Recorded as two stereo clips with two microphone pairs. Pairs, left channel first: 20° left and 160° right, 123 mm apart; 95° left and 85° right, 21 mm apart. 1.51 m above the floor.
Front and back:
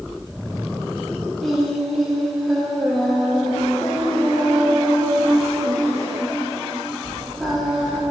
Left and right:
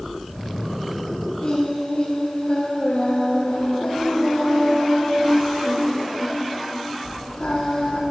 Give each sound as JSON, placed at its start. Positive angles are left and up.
{"t": 1.4, "sound": "singing", "azimuth_deg": 110, "distance_m": 1.4}